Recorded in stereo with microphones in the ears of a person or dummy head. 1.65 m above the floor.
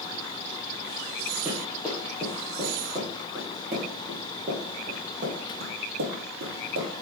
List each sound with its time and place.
1.4 s running footsteps: 5° right (ahead or behind), 2.5 m; by 6.9 s 60° right (ahead or behind), 4 m